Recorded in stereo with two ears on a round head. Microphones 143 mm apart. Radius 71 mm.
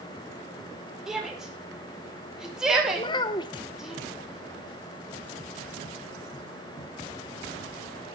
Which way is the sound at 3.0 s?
30° left (ahead or behind).